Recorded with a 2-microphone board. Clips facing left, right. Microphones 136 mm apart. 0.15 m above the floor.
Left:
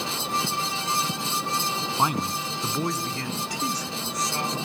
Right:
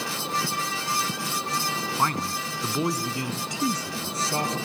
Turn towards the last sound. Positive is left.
turn(degrees=-30)  # may be behind; listen again after turning